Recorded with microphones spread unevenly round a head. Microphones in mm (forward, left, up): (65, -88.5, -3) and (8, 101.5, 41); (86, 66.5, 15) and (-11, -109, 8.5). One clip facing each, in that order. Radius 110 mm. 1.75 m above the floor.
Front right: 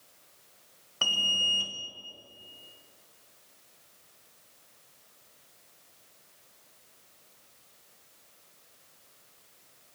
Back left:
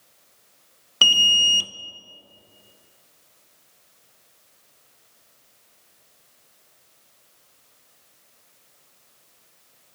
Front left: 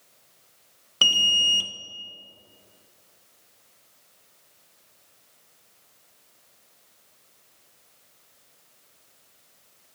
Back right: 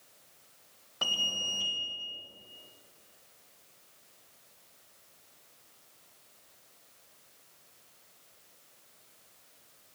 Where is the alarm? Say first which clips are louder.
Back left 6 dB, front left 5 dB; 110° left, 0.5 m.